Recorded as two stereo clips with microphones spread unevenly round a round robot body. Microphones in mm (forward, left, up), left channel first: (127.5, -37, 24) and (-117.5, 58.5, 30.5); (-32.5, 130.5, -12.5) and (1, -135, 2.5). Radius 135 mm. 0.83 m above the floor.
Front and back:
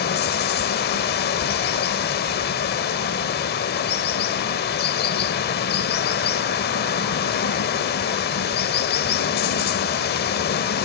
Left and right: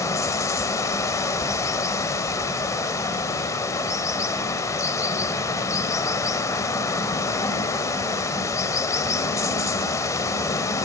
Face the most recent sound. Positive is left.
turn(degrees=20)